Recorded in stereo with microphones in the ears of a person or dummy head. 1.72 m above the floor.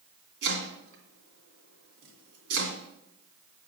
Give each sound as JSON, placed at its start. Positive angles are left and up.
{"t": 0.4, "sound": "chopping", "side_deg": -75, "distance_m": 2.5}